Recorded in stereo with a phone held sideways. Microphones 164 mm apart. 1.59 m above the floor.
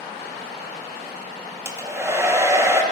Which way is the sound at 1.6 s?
15° right (ahead or behind).